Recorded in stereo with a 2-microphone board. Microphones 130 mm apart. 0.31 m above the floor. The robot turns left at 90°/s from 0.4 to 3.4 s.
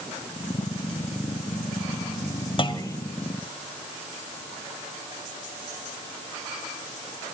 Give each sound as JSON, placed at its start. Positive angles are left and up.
{"t": 2.6, "sound": "a clunk", "azimuth_deg": 70, "distance_m": 1.2}